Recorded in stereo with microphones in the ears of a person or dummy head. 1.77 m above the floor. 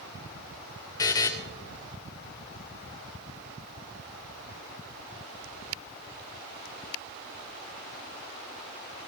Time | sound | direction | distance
1.0 | a buzzer | 15° left (ahead or behind) | 0.5 m